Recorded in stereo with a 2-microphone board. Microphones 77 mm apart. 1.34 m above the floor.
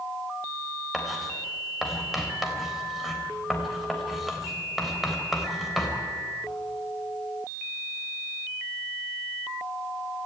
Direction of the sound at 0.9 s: Centre (ahead or behind).